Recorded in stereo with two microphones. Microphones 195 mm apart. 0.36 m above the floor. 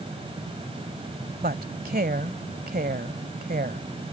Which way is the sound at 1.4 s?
50° right (ahead or behind).